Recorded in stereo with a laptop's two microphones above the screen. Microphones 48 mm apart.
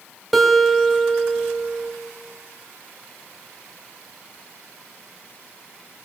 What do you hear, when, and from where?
0.3 s a guitar: centre (ahead or behind), 2 m